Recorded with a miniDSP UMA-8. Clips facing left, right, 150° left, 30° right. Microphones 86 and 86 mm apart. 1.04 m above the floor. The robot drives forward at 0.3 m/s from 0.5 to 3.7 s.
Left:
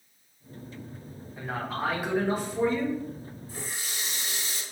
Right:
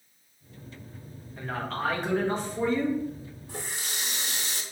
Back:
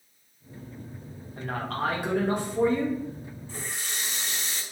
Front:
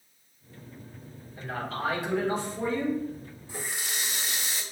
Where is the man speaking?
170° left, 1.2 m; by 3.0 s 175° left, 1.6 m.